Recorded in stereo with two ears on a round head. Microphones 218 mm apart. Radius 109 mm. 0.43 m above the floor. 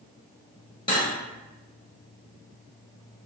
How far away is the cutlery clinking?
About 1.2 m.